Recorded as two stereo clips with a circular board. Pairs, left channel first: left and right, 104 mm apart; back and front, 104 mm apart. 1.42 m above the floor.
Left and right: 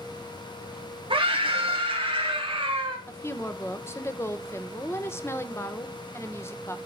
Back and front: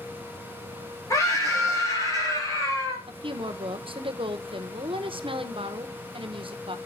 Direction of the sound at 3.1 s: 25° left.